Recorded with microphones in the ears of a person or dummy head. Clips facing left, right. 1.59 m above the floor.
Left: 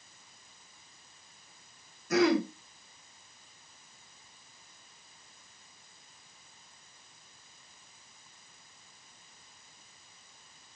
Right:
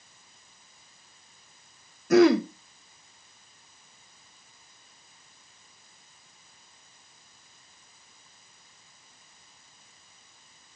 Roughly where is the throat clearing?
Right.